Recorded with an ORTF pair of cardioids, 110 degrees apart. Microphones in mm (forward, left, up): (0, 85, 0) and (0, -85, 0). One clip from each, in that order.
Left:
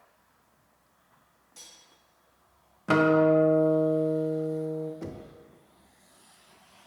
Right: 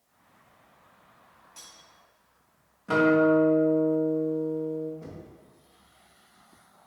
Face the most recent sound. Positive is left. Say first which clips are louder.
# left 4 dB
turn(degrees=45)